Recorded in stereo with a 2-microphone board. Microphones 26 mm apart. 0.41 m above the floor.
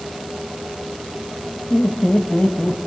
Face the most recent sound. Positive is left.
turn(degrees=45)  # may be behind; listen again after turning